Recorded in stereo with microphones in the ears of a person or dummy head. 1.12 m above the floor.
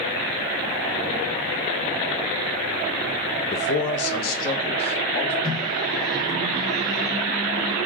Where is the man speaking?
45° left (ahead or behind), 0.5 m; by 5.3 s 30° left (ahead or behind), 1.2 m.